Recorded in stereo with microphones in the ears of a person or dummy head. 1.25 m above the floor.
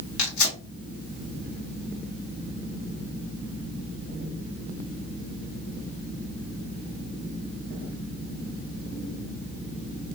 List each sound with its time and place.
0.2 s tearing paper: 80° left, 1.9 m